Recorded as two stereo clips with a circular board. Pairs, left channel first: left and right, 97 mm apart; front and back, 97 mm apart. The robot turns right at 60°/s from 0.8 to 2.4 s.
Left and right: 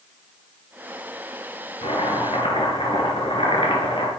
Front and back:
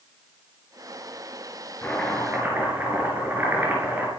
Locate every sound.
1.8 s chopping: 75° left, 4.5 m; by 4.1 s 110° left, 4.5 m